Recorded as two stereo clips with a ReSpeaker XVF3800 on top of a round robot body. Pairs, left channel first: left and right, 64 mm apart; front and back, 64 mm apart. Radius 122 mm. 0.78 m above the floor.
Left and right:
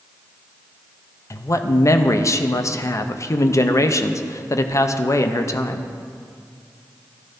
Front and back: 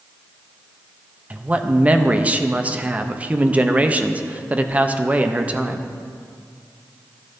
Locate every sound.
1.3 s a man speaking: 115° left, 0.7 m